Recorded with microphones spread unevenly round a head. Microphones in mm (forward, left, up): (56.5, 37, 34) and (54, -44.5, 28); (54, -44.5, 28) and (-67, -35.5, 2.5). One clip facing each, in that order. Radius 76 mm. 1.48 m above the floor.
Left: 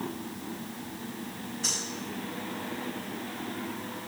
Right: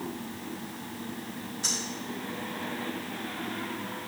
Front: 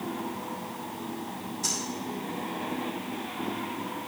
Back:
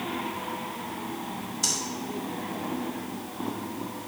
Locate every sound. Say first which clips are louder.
1.6 s breathing: even, back 2 dB; 170° right, 3 m